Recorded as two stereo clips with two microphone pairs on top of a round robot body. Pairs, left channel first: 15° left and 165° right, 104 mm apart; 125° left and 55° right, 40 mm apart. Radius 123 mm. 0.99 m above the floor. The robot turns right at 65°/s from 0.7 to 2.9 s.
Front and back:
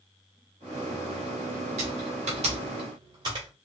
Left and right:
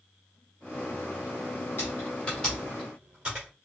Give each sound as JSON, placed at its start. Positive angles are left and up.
{"t": 1.8, "sound": "typing on a keyboard", "azimuth_deg": 170, "distance_m": 1.2}